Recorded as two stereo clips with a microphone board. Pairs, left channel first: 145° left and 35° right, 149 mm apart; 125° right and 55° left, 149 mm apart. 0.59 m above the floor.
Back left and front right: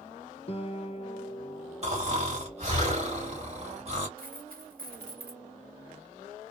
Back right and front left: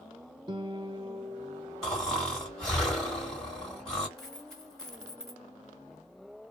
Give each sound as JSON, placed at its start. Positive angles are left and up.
{"t": 0.5, "sound": "a guitar", "azimuth_deg": 110, "distance_m": 0.6}
{"t": 1.8, "sound": "snoring", "azimuth_deg": -40, "distance_m": 1.7}
{"t": 4.2, "sound": "a dropped coin", "azimuth_deg": -40, "distance_m": 1.2}